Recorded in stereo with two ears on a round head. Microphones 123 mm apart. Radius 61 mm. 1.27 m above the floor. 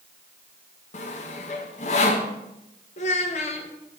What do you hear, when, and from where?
0.9 s sawing: 60° left (ahead or behind), 0.9 m
3.0 s a child speaking: 55° left (ahead or behind), 1.0 m